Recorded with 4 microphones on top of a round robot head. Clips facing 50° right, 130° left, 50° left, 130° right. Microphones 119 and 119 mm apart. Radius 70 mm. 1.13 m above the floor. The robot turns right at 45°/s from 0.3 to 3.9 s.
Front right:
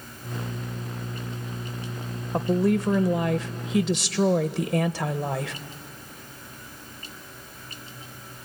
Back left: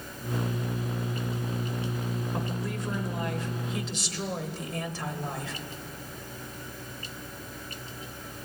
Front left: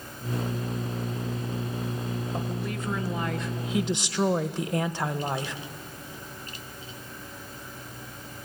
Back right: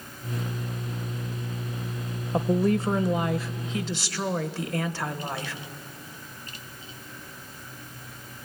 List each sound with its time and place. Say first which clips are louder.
2.3 s a woman speaking: front right 11 dB, back right 9 dB; 95° right, 1.0 m; by 5.5 s 25° right, 1.0 m